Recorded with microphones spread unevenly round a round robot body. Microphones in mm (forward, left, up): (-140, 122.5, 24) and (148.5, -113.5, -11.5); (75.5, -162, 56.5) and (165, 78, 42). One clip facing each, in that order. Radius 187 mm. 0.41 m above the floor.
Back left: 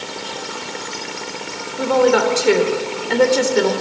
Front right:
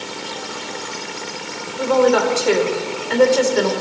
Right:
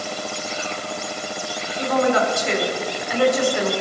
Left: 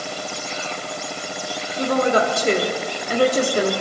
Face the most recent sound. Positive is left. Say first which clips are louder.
# even, even
turn(degrees=90)